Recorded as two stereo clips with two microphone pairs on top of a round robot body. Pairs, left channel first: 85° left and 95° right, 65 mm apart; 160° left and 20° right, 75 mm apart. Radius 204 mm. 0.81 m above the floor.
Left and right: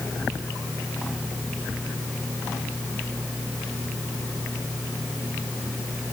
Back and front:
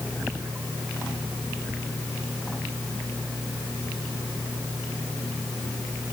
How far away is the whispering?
No whispering in this recording.